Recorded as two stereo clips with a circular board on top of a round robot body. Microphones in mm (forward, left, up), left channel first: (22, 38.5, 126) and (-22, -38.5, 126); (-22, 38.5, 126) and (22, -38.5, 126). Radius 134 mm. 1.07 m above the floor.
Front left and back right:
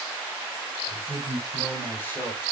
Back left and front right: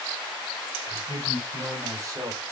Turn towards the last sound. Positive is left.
turn(degrees=0)